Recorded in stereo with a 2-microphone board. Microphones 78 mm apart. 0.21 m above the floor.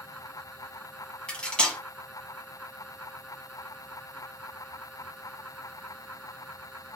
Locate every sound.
1.3 s cutlery clinking: 15° left (ahead or behind), 1.0 m